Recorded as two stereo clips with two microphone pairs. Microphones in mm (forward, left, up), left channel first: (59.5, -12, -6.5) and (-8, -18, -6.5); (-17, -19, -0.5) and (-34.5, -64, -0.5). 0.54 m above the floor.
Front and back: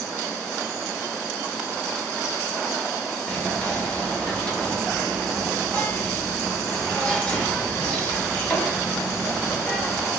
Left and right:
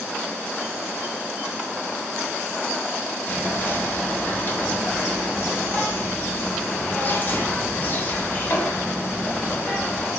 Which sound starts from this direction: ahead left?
Whispering, at 3.3 s.